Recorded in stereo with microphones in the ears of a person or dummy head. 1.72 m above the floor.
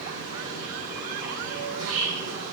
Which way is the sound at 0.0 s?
70° right (ahead or behind).